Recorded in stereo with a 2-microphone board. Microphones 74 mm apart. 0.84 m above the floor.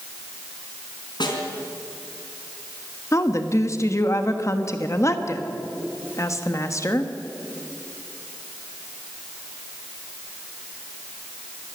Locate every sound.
1.2 s a snare drum: 75° left (ahead or behind), 4 m
3.1 s a woman speaking: 40° left (ahead or behind), 1.3 m